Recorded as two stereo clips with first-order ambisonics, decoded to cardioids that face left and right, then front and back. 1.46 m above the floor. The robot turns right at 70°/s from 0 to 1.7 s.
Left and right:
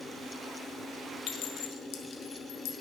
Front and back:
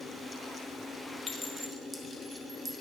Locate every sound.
1.3 s a clink: 70° left, 0.6 m; by 2.7 s 100° left, 0.6 m